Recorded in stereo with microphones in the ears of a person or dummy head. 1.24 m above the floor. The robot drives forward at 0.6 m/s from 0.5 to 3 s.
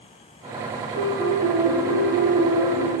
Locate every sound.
0.9 s a piano: 35° right (ahead or behind), 1.9 m; by 2.8 s 25° right (ahead or behind), 3 m